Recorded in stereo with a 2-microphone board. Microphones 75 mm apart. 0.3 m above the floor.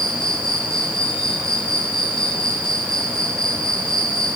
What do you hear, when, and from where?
0.0 s an insect: 10° left (ahead or behind), 6.5 m